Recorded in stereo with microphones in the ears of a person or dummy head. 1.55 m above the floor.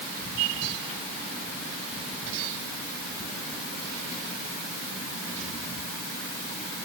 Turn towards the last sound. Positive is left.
No sound to turn to.